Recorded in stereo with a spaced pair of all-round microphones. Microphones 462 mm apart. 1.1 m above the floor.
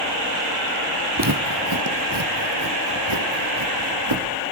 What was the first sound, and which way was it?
Footsteps, 45° right (ahead or behind).